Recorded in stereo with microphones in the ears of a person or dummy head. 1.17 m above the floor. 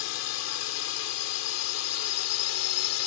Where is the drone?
70° left (ahead or behind); by 3.1 s 75° left (ahead or behind).